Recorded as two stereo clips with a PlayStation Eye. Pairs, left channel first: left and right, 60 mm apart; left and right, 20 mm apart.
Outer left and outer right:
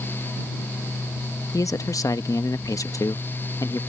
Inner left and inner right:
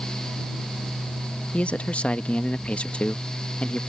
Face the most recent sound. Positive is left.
turn(degrees=70)  # may be behind; listen again after turning